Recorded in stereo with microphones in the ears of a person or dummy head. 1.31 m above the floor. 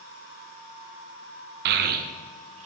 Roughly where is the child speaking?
Right.